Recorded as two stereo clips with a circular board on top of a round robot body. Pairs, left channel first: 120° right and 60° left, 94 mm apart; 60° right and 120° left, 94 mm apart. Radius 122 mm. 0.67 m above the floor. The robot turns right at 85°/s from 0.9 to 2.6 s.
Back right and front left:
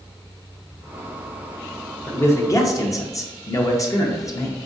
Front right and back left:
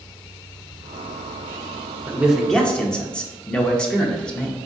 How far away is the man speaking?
About 0.9 m.